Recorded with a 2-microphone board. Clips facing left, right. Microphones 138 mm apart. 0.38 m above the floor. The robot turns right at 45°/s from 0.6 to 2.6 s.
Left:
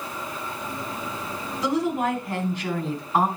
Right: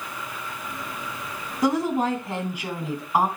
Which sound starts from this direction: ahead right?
A woman speaking, at 1.6 s.